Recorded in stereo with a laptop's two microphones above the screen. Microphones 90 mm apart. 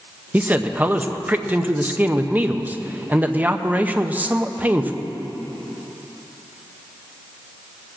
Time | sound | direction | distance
0.3 | a man speaking | 20° right (ahead or behind) | 0.6 m